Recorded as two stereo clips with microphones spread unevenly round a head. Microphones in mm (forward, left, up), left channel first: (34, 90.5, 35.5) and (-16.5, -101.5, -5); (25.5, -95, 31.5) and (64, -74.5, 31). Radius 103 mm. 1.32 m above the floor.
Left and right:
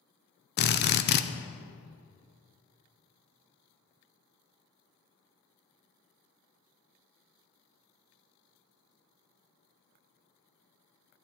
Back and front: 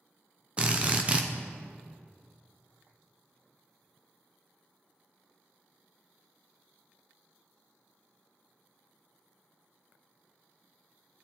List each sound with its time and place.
0.6 s a drill: 70° left, 0.5 m